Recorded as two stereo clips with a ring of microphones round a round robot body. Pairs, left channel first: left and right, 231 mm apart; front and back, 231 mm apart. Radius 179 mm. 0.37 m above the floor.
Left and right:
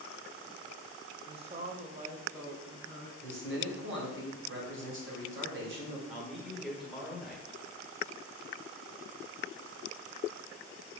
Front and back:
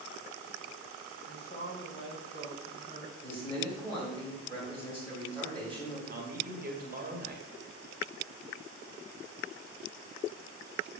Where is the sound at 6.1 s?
Straight behind, 1.4 m.